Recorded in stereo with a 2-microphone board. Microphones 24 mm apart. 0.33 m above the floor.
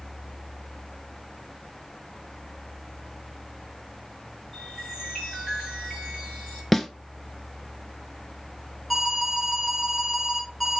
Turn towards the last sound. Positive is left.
turn(degrees=0)  # may be behind; listen again after turning